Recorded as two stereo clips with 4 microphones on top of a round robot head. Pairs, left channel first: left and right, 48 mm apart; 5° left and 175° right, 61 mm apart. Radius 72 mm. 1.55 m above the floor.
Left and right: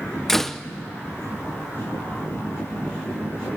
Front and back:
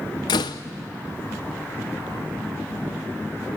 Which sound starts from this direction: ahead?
A door slam, at 0.3 s.